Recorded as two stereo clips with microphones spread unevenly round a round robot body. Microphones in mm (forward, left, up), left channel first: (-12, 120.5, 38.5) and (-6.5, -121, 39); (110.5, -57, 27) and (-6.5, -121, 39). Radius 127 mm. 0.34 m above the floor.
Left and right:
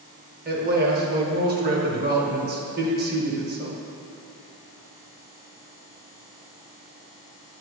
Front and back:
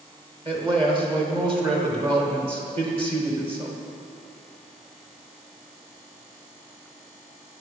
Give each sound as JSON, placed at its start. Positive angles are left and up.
{"t": 0.5, "sound": "a man speaking", "azimuth_deg": -115, "distance_m": 1.2}